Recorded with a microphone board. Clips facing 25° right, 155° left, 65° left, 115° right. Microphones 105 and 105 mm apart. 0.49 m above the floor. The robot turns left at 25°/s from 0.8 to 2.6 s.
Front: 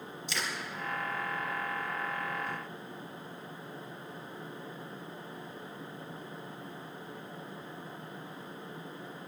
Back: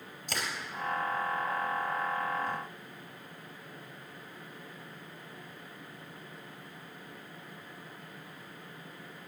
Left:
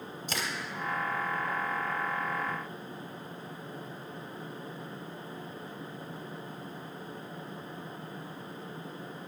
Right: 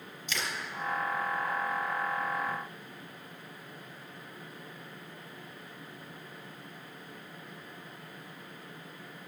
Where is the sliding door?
I don't hear a sliding door.